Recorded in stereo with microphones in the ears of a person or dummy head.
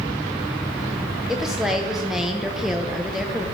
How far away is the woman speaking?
About 0.6 m.